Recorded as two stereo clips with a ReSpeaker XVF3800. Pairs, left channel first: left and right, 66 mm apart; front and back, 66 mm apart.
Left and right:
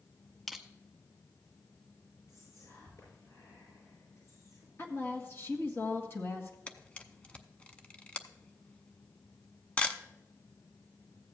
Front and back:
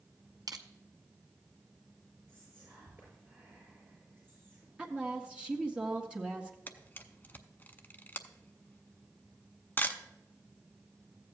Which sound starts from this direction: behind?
Crushing, at 0.5 s.